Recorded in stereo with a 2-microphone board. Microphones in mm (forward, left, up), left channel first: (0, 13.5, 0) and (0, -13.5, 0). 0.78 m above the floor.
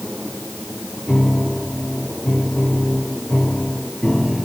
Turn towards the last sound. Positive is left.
turn(degrees=20)  # may be behind; listen again after turning